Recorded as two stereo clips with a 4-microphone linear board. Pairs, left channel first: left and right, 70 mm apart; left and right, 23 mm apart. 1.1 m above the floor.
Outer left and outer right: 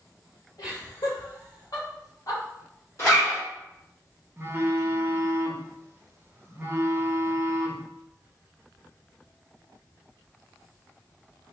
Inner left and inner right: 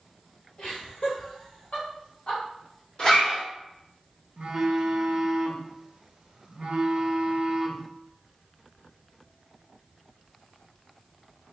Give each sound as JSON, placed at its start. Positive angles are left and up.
{"t": 0.6, "sound": "laughter", "side_deg": 65, "distance_m": 2.0}
{"t": 3.0, "sound": "a zipper", "side_deg": 40, "distance_m": 1.5}
{"t": 4.4, "sound": "a phone buzzing", "side_deg": -35, "distance_m": 0.6}